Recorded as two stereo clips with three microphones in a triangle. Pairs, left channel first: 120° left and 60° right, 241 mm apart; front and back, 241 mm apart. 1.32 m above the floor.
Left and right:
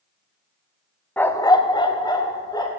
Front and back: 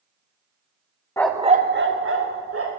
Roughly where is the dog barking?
Ahead left.